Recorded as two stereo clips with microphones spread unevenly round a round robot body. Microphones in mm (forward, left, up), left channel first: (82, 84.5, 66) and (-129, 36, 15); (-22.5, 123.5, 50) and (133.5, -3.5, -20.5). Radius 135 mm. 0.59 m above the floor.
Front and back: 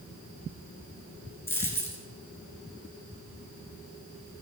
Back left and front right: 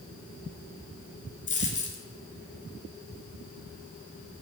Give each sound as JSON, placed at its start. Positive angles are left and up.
{"t": 1.5, "sound": "a dropped coin", "azimuth_deg": 90, "distance_m": 2.5}